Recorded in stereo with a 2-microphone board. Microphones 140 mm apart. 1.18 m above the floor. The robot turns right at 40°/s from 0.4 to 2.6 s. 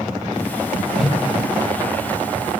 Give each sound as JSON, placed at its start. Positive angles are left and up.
{"t": 0.9, "sound": "a whoosh", "side_deg": 0, "distance_m": 1.2}